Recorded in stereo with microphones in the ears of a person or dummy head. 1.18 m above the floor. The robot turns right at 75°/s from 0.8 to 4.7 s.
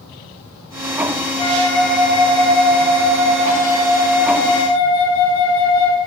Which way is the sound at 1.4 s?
145° left.